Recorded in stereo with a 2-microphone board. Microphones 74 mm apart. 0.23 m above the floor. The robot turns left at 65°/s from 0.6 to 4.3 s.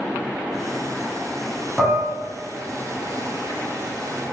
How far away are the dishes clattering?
About 1.1 m.